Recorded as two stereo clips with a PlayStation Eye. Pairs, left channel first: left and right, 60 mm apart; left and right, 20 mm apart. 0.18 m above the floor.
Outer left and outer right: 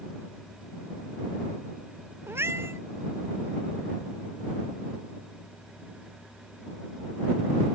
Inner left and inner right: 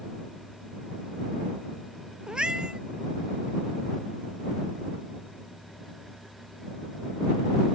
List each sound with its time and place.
2.3 s a cat meowing: 50° right (ahead or behind)